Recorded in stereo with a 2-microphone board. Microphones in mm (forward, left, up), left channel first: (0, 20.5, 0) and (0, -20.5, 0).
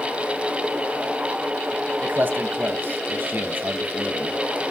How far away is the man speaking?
About 2.5 m.